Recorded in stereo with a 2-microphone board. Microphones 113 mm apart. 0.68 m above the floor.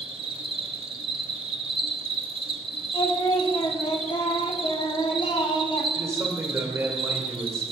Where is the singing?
55° left (ahead or behind), 1.1 m.